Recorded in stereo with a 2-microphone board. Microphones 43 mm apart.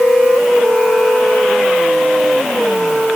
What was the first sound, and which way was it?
Only background noise.